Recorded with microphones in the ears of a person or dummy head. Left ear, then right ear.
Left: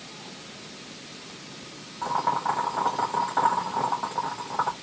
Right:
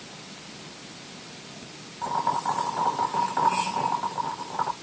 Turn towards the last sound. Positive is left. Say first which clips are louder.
# left 1 dB
turn(degrees=10)  # may be behind; listen again after turning